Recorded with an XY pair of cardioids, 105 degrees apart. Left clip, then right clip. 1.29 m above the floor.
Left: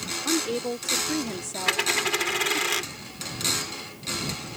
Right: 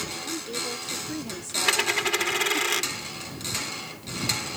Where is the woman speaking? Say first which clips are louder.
Left 9 dB; 60° left; by 2.7 s 15° right.